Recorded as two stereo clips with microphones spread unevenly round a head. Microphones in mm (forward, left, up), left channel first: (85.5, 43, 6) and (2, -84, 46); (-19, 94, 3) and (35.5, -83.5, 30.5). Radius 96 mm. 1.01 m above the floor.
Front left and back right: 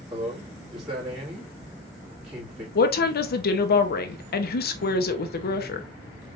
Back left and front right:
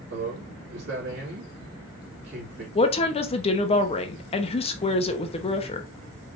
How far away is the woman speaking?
About 0.8 m.